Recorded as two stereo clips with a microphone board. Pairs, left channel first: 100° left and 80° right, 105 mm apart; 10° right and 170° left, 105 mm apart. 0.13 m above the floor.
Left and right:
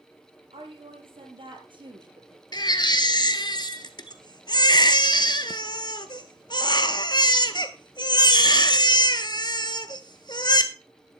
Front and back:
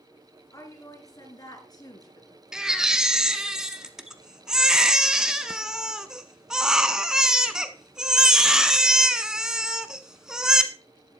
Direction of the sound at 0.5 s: 65° right.